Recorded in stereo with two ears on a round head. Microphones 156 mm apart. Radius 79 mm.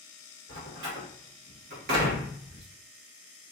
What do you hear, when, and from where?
0.5 s a door slam: 70° right (ahead or behind), 1.2 m
2.4 s whispering: 70° right (ahead or behind), 0.6 m